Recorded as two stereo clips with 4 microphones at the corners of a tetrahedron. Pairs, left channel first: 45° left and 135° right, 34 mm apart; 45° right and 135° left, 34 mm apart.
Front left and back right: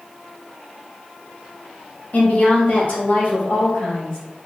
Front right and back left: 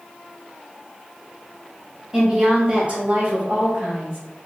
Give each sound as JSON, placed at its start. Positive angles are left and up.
{"t": 2.1, "sound": "a woman speaking", "azimuth_deg": 70, "distance_m": 1.1}